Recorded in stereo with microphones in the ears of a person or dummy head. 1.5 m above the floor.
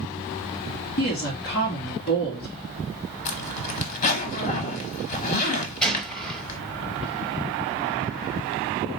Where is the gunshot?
Centre (ahead or behind), 0.9 m.